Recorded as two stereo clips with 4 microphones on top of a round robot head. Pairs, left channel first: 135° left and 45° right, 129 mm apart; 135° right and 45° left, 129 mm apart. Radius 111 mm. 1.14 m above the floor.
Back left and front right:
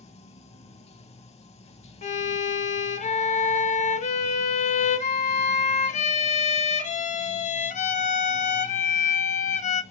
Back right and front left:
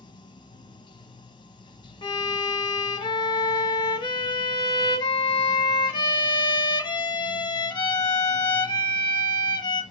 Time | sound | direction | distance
0.0 | running water | 170° left | 1.3 m
2.0 | a violin | 170° left | 1.4 m